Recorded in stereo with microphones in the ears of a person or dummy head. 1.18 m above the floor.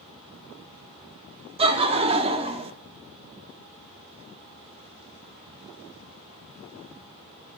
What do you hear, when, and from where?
1.6 s laughter: 30° right (ahead or behind), 0.7 m